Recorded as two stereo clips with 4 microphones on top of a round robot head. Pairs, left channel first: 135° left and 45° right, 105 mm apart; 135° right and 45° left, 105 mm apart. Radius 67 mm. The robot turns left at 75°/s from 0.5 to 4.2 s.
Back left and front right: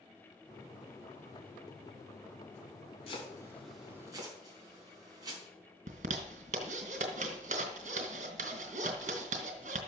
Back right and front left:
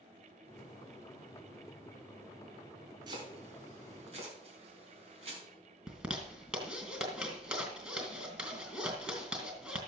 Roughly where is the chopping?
Left.